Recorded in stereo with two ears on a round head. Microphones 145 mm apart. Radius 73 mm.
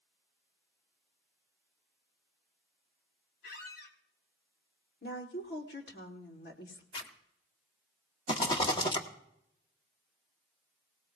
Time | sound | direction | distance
3.4 | a squeak | 65° left (ahead or behind) | 1.7 m
5.0 | a woman speaking | 70° left (ahead or behind) | 2.5 m
6.9 | a zipper | 30° left (ahead or behind) | 1.3 m
8.3 | a rattle | 30° left (ahead or behind) | 1.4 m